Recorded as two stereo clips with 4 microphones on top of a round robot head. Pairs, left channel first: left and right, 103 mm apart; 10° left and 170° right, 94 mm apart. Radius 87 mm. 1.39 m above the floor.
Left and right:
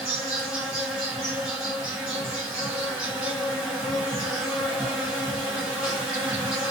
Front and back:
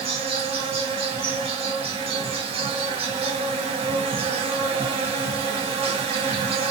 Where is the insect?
175° right, 1.2 m.